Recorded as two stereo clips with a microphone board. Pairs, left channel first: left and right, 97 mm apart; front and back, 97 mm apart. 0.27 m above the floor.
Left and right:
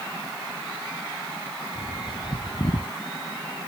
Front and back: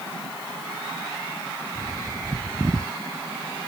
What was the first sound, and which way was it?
A bird, 120° left.